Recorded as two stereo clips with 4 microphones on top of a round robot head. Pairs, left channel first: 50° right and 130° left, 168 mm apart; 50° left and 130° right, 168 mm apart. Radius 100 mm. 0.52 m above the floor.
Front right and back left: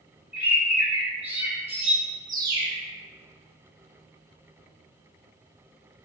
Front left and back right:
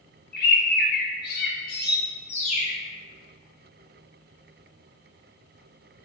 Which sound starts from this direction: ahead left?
A bird, at 0.3 s.